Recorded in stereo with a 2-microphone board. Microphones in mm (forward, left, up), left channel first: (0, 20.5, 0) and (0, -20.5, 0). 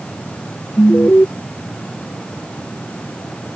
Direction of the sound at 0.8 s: 50° left (ahead or behind).